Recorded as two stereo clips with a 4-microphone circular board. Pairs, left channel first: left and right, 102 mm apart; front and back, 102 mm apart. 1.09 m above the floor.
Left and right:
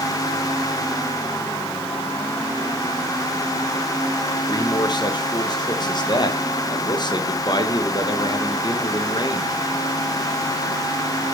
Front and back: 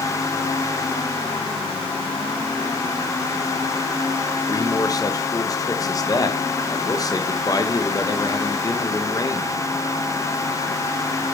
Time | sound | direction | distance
4.5 | a man speaking | 50° left | 1.4 m